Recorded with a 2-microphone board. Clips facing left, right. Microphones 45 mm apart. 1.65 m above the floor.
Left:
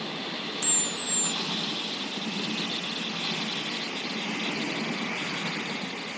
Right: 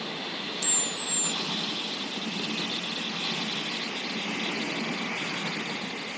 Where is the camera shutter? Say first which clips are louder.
Even; 35° left (ahead or behind).